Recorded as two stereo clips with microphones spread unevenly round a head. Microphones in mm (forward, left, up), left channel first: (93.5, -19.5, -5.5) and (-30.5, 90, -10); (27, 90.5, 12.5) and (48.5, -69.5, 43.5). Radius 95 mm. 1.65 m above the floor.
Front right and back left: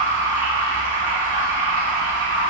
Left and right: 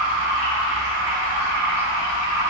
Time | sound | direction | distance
0.0 | running water | 150° right | 1.0 m